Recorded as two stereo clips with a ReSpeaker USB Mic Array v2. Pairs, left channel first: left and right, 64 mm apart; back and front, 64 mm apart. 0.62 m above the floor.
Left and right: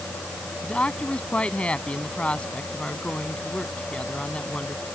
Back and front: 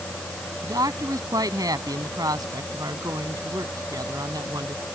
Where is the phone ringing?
No phone ringing in this recording.